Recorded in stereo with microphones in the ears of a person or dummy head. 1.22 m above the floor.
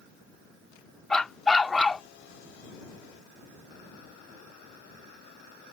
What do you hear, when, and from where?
1.1 s a dog barking: 5° left (ahead or behind)